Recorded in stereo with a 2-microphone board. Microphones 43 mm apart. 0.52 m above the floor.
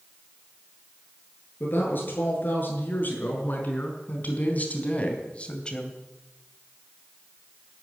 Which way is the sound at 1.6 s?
50° left (ahead or behind).